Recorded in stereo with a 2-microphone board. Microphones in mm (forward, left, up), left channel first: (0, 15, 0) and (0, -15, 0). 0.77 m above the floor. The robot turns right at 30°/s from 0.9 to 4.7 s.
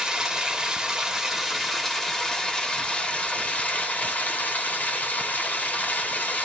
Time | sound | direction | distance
0.0 | running water | 25° right | 1.0 m